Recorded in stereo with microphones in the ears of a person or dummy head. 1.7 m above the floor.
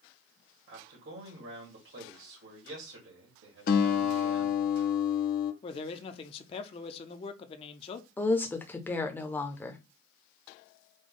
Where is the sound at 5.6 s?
35° left (ahead or behind), 0.7 m.